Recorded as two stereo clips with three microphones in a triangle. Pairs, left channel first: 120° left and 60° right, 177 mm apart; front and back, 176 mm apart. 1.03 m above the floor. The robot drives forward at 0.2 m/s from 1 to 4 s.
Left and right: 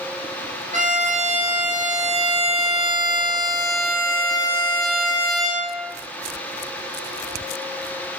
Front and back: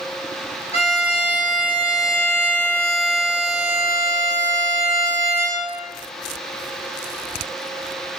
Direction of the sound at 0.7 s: 40° right.